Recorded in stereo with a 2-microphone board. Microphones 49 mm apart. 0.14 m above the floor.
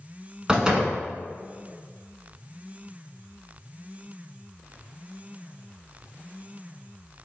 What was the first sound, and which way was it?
A door slam, 15° right (ahead or behind).